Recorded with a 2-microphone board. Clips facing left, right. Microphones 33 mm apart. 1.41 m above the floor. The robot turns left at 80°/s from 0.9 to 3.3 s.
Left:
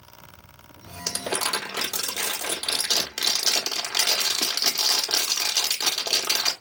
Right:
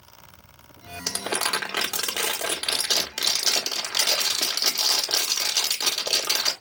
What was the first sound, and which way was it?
Crumpling, 15° right.